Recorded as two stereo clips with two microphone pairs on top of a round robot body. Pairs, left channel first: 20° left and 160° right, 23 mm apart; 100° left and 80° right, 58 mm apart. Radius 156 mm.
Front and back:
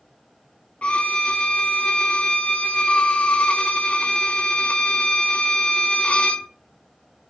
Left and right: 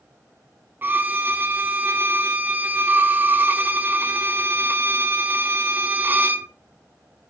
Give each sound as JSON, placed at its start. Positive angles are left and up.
{"t": 0.8, "sound": "a violin", "azimuth_deg": -15, "distance_m": 0.5}